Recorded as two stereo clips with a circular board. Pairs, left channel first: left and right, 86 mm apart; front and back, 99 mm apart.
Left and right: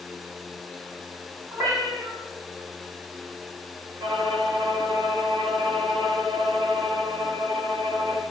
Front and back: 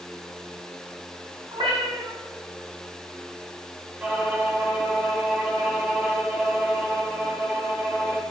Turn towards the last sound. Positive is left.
turn(degrees=-105)